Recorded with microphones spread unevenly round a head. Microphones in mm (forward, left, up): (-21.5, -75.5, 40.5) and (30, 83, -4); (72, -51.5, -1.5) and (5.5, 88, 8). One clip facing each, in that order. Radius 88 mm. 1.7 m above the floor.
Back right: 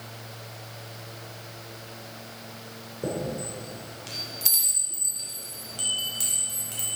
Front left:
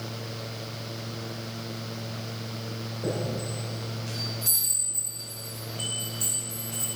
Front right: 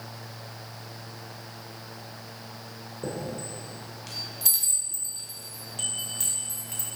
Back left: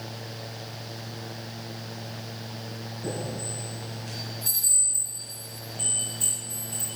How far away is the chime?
About 2.5 m.